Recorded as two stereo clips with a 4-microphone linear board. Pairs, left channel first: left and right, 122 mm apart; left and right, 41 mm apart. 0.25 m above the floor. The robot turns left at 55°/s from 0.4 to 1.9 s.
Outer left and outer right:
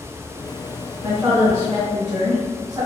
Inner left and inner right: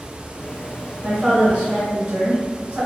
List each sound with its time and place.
1.0 s a woman speaking: 30° right, 1.4 m; by 2.9 s 75° right, 1.4 m